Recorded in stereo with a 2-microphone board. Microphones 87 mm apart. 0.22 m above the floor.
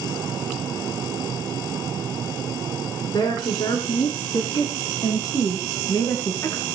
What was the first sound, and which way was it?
A woman speaking, 60° left (ahead or behind).